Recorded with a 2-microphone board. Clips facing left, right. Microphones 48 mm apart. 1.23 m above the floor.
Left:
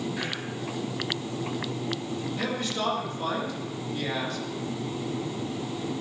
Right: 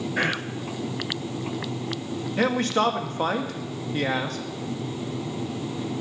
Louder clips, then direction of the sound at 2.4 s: Right 10 dB; 55° right (ahead or behind).